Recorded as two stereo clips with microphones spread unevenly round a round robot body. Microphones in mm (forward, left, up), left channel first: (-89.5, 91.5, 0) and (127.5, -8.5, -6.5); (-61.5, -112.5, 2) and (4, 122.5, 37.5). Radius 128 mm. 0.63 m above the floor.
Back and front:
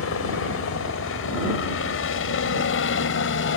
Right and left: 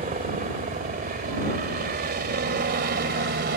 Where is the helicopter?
130° left; by 3.6 s 120° left.